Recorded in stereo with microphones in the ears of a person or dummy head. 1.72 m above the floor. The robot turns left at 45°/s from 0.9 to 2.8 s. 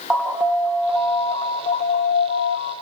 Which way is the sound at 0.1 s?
175° right.